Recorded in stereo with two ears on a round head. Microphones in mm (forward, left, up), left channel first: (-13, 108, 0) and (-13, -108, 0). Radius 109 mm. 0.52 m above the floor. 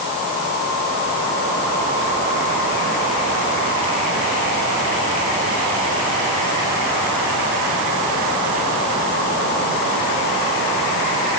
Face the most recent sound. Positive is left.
No sound to turn to.